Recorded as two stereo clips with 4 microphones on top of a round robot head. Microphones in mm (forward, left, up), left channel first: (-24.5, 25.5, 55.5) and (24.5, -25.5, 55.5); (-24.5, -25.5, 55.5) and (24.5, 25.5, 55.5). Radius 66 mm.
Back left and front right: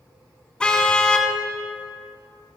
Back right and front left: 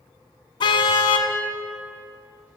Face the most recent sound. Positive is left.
turn(degrees=-145)